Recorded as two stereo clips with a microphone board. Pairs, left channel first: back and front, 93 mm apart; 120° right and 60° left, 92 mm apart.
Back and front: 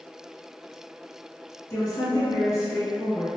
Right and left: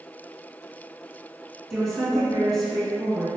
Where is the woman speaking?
155° left, 1.9 m.